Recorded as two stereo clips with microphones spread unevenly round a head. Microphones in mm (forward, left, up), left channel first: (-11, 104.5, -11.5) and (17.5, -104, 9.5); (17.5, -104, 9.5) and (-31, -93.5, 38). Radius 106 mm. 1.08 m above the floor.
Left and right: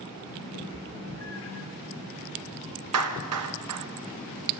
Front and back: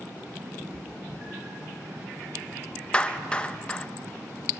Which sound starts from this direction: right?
A clap, at 2.9 s.